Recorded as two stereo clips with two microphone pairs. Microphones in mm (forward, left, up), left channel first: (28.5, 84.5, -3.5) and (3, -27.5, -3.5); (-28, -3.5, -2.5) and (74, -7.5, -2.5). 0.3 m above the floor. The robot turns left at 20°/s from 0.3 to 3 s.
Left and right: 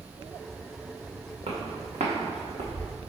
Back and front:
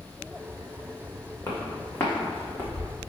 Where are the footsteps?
115° right, 1.7 m; by 2.9 s 105° right, 1.3 m.